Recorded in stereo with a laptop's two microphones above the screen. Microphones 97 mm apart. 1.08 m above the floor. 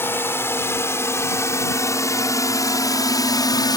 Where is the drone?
25° left (ahead or behind); by 3.8 s 45° left (ahead or behind).